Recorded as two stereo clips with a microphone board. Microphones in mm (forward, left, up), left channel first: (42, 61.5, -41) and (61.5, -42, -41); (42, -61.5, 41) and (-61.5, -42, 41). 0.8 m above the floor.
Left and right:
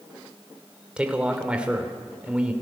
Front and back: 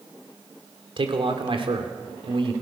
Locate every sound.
1.0 s a man speaking: 160° right, 2.5 m